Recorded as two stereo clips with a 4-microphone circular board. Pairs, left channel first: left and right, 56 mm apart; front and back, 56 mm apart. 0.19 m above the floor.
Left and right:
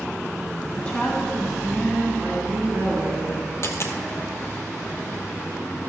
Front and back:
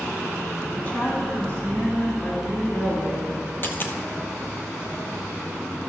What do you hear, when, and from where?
0.8 s a woman speaking: 45° left, 1.5 m; by 3.5 s 55° right, 4 m
3.6 s a dropped coin: 50° left, 1.1 m